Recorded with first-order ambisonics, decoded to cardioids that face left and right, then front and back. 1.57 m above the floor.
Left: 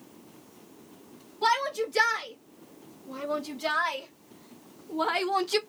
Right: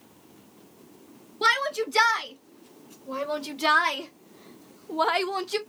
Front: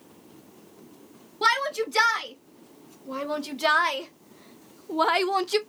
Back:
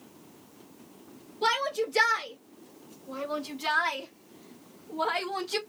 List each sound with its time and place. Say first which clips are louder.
1.4 s a shout: right 2 dB, front 4 dB; 50° right, 2.5 m; by 5.6 s 50° left, 0.5 m